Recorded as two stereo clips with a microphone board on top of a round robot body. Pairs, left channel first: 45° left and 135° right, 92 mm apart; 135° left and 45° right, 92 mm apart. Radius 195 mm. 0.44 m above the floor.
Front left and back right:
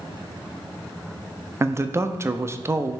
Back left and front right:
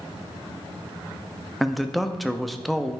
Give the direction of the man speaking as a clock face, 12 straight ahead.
4 o'clock.